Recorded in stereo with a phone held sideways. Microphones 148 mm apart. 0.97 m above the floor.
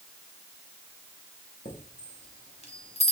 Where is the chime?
45° left (ahead or behind), 1.0 m.